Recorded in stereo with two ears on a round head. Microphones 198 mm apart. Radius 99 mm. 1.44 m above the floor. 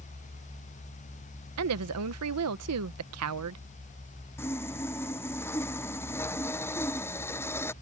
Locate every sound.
1.6 s a woman speaking: 80° right
4.4 s sawing: 10° left (ahead or behind)